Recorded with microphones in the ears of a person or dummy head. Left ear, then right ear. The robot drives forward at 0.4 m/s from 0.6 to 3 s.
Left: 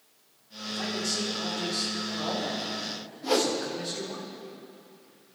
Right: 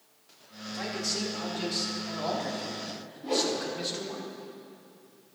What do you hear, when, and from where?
0.7 s a man speaking: 25° right (ahead or behind), 5.5 m
3.2 s a whoosh: 50° left (ahead or behind), 2.5 m